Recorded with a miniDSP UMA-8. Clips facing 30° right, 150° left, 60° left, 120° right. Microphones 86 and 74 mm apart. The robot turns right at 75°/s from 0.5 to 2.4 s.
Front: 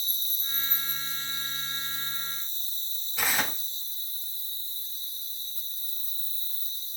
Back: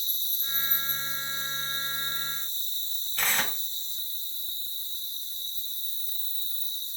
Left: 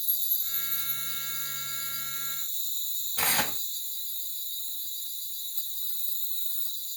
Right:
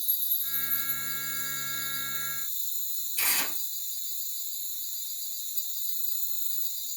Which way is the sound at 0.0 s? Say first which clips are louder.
Even, even; 20° left.